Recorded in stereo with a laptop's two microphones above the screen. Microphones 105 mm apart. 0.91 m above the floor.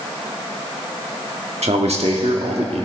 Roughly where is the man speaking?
Right.